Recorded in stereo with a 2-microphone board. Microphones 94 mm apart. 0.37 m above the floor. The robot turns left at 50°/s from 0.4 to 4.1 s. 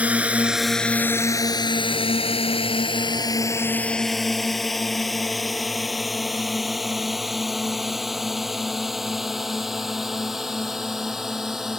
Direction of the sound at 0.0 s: 15° right (ahead or behind).